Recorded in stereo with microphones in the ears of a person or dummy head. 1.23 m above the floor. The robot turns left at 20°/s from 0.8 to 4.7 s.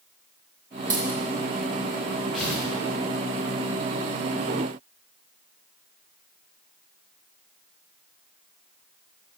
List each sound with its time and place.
0.9 s a dropped coin: 15° right (ahead or behind), 2 m; by 1.2 s 20° right (ahead or behind), 2 m
2.3 s tearing paper: centre (ahead or behind), 1.9 m; by 2.7 s 5° left (ahead or behind), 1.9 m